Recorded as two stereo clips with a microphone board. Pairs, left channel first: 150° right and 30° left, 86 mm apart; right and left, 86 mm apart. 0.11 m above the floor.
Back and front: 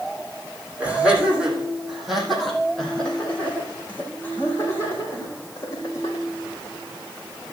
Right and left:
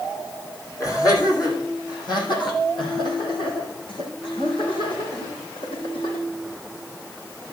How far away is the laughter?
About 4.5 m.